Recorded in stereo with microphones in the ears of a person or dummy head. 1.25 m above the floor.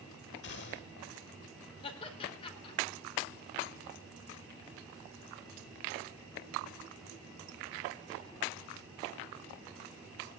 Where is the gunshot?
60° left (ahead or behind), 1.9 m.